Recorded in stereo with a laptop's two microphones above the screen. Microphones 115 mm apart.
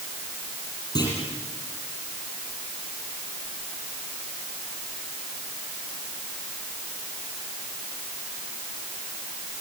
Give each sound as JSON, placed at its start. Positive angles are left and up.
{"t": 0.9, "sound": "a clunk", "side_deg": 35, "distance_m": 9.5}